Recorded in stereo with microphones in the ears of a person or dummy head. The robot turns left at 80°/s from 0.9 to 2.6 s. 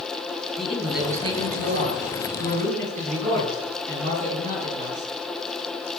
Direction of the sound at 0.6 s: 5° right.